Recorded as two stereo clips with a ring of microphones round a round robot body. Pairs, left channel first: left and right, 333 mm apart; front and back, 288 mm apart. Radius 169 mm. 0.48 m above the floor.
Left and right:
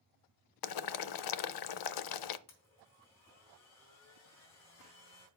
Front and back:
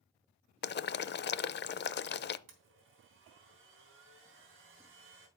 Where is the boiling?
60° left, 0.5 m.